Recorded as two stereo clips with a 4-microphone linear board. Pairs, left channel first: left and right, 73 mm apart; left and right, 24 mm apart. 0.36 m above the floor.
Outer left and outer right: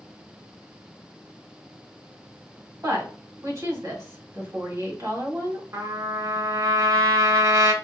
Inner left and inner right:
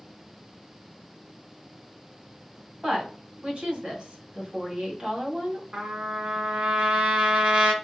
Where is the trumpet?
50° right (ahead or behind), 1.1 m.